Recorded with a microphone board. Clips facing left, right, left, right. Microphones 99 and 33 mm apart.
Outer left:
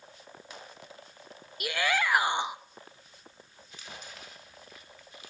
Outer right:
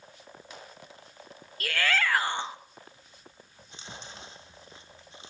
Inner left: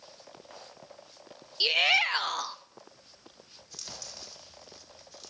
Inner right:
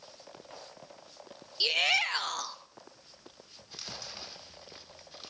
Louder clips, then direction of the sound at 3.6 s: Outer right 1 dB, inner right 2 dB; 30° right (ahead or behind).